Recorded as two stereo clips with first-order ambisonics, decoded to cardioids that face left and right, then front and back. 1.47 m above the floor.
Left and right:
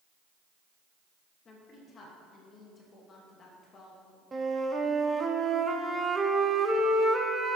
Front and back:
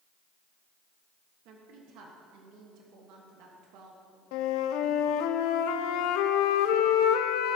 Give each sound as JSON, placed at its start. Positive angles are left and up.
{"t": 1.4, "sound": "a woman speaking", "azimuth_deg": 155, "distance_m": 1.3}
{"t": 4.3, "sound": "a flute", "azimuth_deg": -15, "distance_m": 0.6}